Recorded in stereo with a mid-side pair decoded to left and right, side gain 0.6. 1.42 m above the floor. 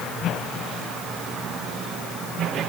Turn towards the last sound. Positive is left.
No sound to turn to.